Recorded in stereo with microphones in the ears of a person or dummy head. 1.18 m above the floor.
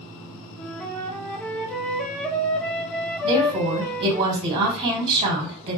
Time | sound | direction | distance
0.6 | a flute | 5° left (ahead or behind) | 0.6 m
3.2 | a woman speaking | 30° right (ahead or behind) | 2.5 m